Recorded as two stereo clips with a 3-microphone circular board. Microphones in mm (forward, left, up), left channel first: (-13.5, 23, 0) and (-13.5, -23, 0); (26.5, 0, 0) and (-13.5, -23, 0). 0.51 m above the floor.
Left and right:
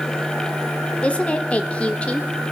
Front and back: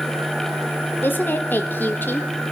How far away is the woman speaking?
About 1.0 m.